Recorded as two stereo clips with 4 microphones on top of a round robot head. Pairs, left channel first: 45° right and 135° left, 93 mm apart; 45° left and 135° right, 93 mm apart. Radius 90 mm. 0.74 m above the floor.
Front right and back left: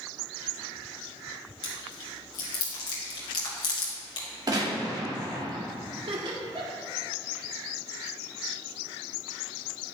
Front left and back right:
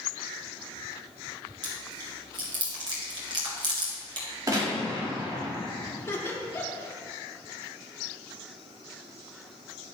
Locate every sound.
1.6 s chewing: 90° right, 2.5 m
4.5 s a gunshot: 175° left, 3 m
6.0 s laughter: 110° left, 2 m